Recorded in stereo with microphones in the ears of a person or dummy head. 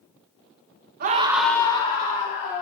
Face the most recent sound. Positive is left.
turn(degrees=45)  # may be behind; listen again after turning